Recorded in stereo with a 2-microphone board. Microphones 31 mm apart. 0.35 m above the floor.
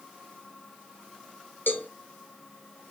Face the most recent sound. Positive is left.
turn(degrees=80)